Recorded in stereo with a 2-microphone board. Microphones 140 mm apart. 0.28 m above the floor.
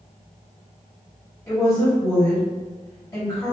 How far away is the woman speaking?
About 1.3 m.